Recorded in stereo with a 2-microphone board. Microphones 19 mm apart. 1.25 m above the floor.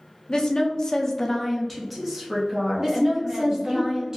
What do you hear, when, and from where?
0.3 s a woman speaking: 45° left (ahead or behind), 0.7 m; by 3.8 s 25° right (ahead or behind), 1.5 m
2.8 s a woman speaking: 30° right (ahead or behind), 1.2 m